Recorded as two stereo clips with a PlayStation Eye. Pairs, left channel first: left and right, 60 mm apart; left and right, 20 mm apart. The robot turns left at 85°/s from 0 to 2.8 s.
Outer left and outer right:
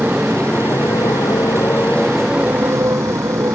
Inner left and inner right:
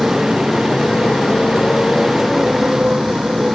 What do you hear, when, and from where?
0.0 s a motorcycle: 25° right (ahead or behind); by 3.6 s 65° right (ahead or behind)